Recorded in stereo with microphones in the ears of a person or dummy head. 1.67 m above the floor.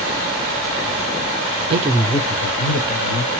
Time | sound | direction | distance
1.7 | a man speaking | 35° right (ahead or behind) | 0.5 m